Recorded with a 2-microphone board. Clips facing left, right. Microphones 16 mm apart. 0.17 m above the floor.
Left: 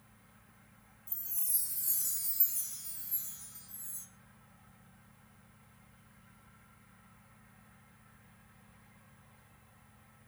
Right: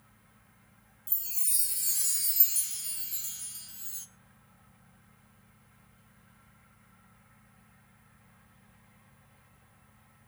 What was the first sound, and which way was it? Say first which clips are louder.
A chime: right 7 dB; 70° right (ahead or behind).